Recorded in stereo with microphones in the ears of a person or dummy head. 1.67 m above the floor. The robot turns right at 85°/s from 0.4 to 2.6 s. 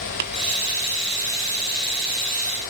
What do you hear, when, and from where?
0.2 s tapping: 50° right (ahead or behind), 1.0 m